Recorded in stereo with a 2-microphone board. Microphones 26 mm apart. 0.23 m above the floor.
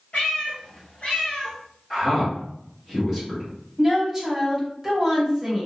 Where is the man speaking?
15° left (ahead or behind), 1.4 m.